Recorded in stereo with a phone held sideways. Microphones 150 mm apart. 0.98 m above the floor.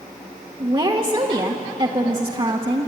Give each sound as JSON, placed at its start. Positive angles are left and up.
{"t": 0.6, "sound": "a woman speaking", "side_deg": -35, "distance_m": 1.2}